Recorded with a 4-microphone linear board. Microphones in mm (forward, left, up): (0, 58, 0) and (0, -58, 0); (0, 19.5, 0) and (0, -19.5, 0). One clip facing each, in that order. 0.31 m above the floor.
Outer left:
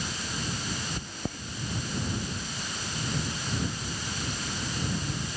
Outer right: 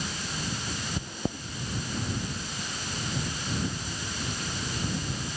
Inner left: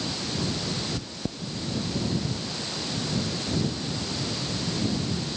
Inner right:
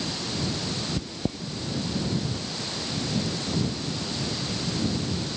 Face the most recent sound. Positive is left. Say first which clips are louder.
# outer right 3 dB, inner right 3 dB
turn(degrees=-15)  # may be behind; listen again after turning